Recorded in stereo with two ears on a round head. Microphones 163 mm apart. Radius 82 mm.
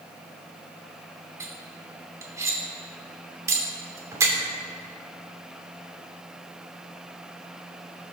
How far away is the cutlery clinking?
About 2.5 m.